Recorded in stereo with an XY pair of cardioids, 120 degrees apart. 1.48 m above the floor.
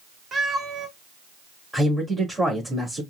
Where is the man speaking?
10° right, 2.5 m.